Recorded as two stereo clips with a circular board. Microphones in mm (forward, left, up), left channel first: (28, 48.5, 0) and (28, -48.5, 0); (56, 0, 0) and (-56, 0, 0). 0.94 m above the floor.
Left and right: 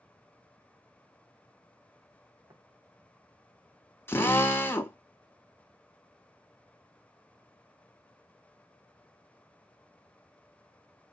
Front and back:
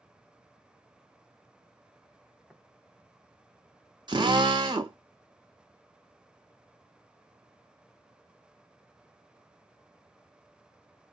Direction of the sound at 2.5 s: 90° right.